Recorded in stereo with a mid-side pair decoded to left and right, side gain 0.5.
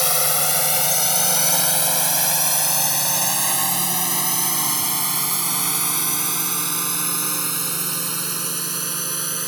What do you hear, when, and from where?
0.0 s a drone: 10° left; by 9.5 s 20° right